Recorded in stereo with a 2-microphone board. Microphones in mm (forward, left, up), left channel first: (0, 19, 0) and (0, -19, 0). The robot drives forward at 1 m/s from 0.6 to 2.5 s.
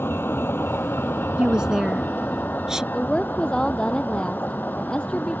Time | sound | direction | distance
0.0 | a vehicle | 65° left (ahead or behind) | ?
1.4 | a woman speaking | 20° right (ahead or behind) | ?
2.9 | a woman speaking | 20° left (ahead or behind) | ?